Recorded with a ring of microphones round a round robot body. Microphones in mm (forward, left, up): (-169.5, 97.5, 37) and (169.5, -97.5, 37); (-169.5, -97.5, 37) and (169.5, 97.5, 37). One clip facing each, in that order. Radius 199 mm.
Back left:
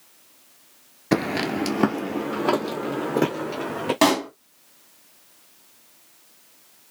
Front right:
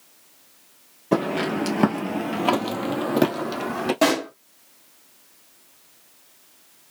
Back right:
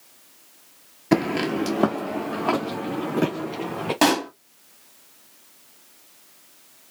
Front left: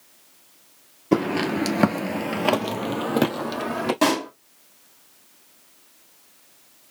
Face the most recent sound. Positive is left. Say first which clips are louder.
# back left 2 dB, back right 3 dB
turn(degrees=155)